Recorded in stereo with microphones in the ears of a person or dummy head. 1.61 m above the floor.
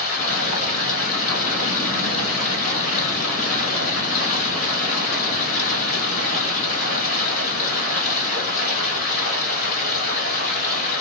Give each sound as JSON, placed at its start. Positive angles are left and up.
{"t": 0.0, "sound": "running water", "side_deg": 55, "distance_m": 2.0}